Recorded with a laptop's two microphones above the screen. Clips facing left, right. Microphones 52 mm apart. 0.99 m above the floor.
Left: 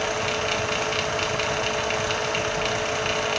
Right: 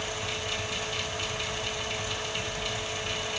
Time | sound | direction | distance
0.0 | a fan | 75° left (ahead or behind) | 0.9 m